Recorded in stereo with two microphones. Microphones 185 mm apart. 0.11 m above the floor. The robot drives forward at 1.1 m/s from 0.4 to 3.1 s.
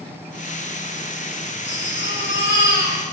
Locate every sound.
1.6 s a baby crying: 75° left (ahead or behind), 7 m; by 3.0 s 80° left, 6.5 m